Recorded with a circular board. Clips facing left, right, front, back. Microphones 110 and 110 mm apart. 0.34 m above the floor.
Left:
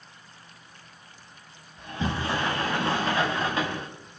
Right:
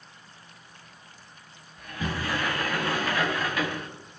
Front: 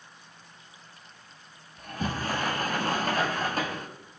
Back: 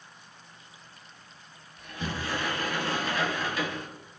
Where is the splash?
I don't hear a splash.